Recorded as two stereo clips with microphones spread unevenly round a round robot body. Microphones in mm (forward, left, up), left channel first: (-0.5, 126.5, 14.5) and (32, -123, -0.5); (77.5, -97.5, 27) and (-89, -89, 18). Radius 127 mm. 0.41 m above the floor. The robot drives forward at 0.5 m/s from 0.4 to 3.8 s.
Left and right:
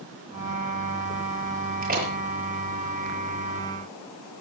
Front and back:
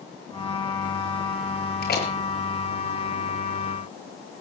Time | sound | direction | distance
1.8 | a door slam | 25° right | 6.5 m